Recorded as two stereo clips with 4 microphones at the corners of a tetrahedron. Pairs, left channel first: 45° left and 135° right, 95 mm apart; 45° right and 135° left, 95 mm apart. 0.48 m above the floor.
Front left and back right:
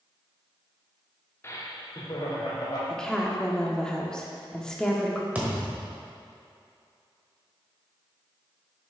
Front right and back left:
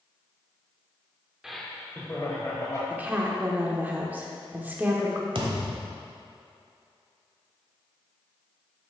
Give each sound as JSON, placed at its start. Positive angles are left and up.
{"t": 1.4, "sound": "laughter", "azimuth_deg": 55, "distance_m": 0.7}
{"t": 2.9, "sound": "a woman speaking", "azimuth_deg": 110, "distance_m": 0.8}
{"t": 5.3, "sound": "a thud", "azimuth_deg": 150, "distance_m": 1.1}